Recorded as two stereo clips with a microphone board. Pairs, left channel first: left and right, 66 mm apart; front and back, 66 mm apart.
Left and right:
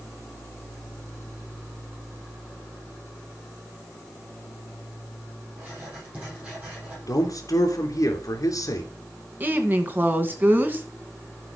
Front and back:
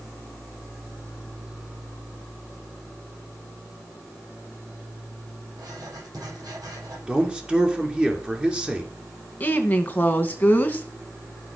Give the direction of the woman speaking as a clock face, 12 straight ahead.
2 o'clock.